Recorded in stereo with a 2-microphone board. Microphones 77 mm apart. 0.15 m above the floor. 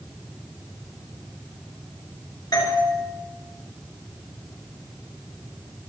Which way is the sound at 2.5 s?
55° left (ahead or behind).